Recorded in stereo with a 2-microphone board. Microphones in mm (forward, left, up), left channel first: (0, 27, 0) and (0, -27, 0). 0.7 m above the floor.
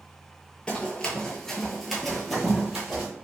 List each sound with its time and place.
0.7 s running footsteps: 15° left (ahead or behind), 0.8 m; by 3.1 s 10° right (ahead or behind), 1.2 m